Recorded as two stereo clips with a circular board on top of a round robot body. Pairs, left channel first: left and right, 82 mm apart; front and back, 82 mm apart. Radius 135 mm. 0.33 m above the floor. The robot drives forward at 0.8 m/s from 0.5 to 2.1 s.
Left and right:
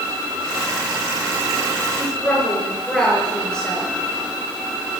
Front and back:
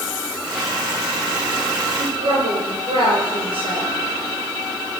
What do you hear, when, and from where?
2.0 s a woman speaking: 170° left, 6 m